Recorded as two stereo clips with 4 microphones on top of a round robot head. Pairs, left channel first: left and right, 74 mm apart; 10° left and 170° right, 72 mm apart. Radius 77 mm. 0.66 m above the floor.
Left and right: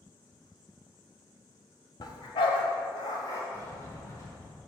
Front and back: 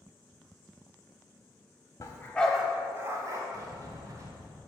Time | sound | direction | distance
2.0 | a dog barking | 55° left | 0.9 m
3.5 | a sliding door | 150° left | 1.2 m